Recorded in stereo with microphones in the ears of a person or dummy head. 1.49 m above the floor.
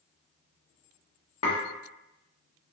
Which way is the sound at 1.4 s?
30° left (ahead or behind).